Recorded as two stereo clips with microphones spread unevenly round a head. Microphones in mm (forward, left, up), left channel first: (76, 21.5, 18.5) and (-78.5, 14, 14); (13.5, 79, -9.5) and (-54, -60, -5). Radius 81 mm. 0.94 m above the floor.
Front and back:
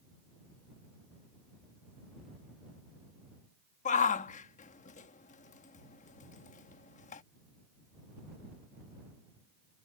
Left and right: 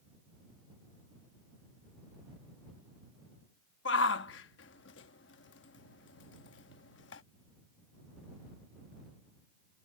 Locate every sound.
3.9 s a shout: 45° left